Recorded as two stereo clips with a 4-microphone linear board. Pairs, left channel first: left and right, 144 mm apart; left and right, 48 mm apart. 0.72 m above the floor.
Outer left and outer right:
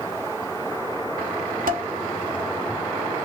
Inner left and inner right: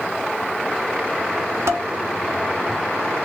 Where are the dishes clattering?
75° right (ahead or behind), 0.6 m.